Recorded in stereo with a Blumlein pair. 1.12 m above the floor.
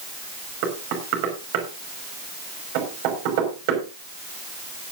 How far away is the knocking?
About 5.5 m.